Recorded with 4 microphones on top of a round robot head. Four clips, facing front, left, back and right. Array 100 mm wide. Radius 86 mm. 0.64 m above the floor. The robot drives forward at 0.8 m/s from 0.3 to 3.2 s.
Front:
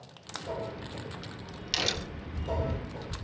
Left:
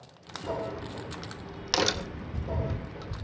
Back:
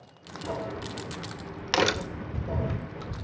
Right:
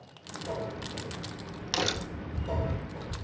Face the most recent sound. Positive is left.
turn(degrees=170)